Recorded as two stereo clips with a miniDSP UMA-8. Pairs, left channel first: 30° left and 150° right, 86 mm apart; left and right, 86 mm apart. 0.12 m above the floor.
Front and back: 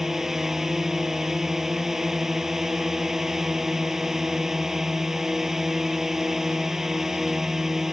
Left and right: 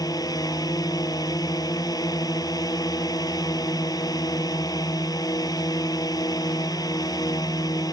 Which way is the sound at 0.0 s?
125° left.